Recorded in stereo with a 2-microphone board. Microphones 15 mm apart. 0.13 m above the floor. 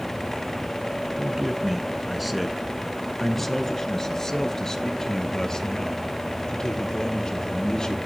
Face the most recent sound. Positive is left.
turn(degrees=50)  # may be behind; listen again after turning